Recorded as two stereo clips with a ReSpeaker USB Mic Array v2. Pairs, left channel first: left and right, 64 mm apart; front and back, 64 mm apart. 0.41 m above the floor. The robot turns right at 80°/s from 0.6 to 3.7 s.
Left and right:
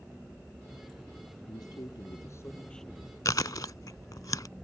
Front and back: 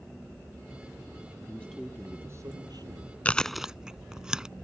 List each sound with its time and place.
1.5 s a man speaking: 65° left; by 3.1 s 160° right
3.2 s chewing: 70° left; by 4.5 s 105° left